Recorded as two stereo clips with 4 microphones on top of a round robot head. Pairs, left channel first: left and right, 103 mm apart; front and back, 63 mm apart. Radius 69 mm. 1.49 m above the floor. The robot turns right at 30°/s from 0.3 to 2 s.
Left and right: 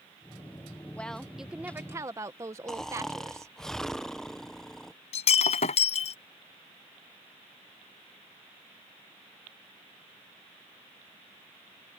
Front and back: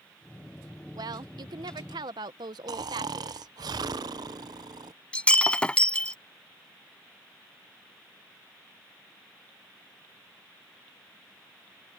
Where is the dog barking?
No dog barking in this recording.